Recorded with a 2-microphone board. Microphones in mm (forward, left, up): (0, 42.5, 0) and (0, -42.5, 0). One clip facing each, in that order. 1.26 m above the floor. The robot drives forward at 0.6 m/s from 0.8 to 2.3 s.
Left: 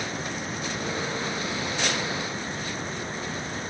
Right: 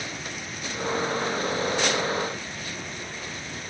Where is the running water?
35° left (ahead or behind).